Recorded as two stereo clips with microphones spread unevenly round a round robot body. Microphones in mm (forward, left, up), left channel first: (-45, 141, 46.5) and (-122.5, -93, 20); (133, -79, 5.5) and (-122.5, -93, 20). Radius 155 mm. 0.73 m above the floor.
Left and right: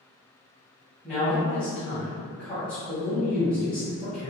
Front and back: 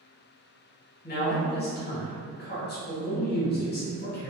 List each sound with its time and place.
1.0 s a man speaking: 20° right, 1.1 m